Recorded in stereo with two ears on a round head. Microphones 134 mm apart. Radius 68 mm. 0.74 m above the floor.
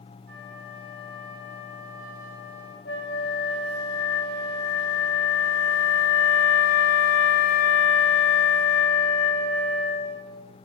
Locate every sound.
0.3 s a flute: 65° right (ahead or behind), 2 m
2.9 s a flute: 75° left (ahead or behind), 0.8 m